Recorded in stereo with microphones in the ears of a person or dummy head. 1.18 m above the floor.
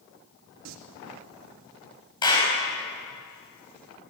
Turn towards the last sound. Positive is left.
turn(degrees=20)  # may be behind; listen again after turning